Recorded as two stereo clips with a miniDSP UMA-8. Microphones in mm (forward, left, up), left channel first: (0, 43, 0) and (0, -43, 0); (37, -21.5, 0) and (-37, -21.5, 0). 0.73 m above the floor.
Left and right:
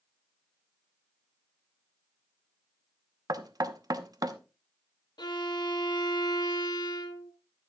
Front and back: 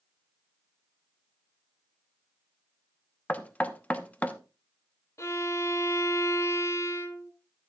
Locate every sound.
3.3 s knocking: 65° right, 0.9 m
5.2 s a violin: 50° left, 1.3 m